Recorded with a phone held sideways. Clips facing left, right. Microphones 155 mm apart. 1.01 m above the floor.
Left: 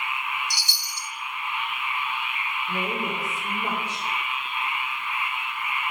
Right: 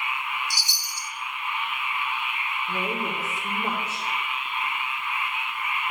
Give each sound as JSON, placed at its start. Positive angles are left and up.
{"t": 0.5, "sound": "a chime", "side_deg": 70, "distance_m": 0.9}
{"t": 2.7, "sound": "a woman speaking", "side_deg": -5, "distance_m": 2.5}